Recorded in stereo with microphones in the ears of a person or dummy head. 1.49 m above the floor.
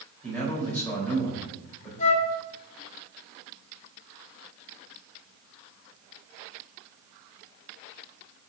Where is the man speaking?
10° left (ahead or behind), 3 m.